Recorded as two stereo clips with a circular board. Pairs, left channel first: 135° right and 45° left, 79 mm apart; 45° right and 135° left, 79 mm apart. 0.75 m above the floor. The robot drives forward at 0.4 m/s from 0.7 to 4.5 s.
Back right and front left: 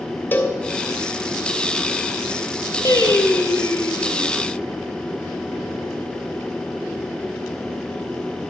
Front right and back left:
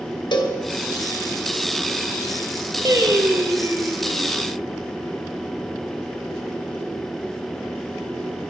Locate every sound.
0.3 s a cowbell: 70° right, 1.2 m
2.9 s singing: straight behind, 1.1 m